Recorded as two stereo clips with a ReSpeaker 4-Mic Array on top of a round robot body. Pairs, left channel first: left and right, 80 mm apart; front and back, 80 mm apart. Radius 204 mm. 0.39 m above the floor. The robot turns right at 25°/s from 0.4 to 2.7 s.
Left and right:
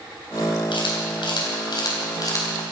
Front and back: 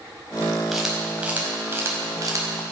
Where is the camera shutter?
90° left, 4.5 m; by 2.7 s 140° left, 4.5 m.